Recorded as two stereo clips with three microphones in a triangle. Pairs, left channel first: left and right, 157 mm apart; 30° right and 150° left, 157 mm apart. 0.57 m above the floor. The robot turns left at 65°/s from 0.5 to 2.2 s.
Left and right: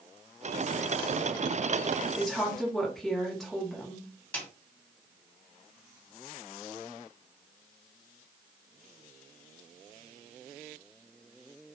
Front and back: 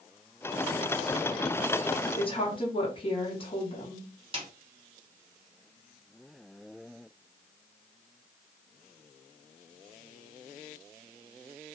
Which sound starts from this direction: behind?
A snare drum, at 4.3 s.